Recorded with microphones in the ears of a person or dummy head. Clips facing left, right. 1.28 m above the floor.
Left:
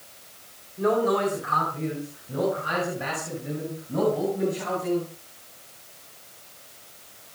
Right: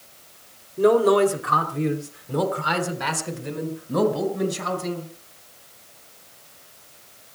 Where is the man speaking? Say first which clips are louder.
Right 6 dB; 50° right (ahead or behind), 3 m; by 5.1 s 85° right, 7 m.